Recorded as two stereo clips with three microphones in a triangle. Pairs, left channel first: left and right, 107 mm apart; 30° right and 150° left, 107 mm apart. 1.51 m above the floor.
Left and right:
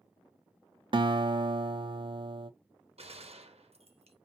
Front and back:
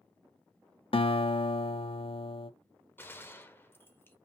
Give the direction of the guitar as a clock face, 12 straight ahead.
2 o'clock.